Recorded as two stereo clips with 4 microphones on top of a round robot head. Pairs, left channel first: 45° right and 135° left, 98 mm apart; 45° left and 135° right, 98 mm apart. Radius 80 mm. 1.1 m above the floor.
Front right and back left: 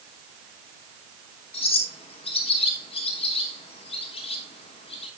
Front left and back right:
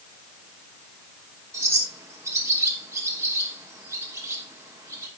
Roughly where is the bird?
Right.